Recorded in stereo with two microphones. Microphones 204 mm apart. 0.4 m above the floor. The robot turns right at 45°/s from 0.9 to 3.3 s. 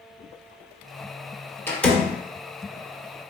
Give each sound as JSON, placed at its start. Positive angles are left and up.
{"t": 1.7, "sound": "a door slam", "side_deg": 10, "distance_m": 0.7}